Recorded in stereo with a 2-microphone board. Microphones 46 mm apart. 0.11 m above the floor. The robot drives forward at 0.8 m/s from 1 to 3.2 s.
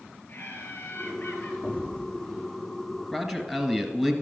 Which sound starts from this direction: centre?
A man speaking, at 3.1 s.